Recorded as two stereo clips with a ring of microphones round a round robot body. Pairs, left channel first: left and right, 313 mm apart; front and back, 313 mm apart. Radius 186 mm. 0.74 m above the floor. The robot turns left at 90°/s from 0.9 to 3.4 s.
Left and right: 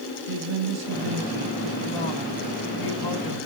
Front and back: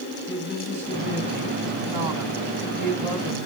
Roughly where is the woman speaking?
Right.